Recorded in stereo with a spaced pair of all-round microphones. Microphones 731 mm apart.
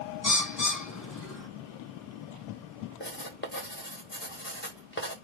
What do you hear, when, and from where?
0.2 s a bird: 25° left (ahead or behind), 1.0 m
3.0 s writing: 15° left (ahead or behind), 1.2 m